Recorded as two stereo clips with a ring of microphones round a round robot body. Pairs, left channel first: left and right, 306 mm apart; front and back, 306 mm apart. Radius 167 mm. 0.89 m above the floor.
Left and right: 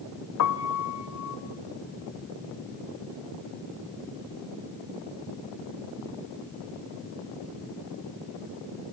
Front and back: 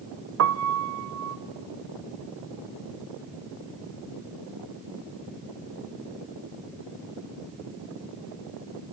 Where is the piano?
135° left, 0.8 m.